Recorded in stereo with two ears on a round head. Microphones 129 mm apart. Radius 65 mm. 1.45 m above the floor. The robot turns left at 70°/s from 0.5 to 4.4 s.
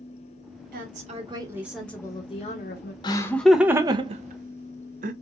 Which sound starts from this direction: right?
A woman speaking, at 0.7 s.